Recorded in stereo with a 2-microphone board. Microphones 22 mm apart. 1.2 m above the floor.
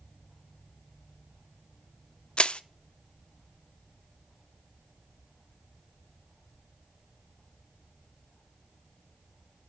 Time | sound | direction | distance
2.4 | crushing | 55° left (ahead or behind) | 0.6 m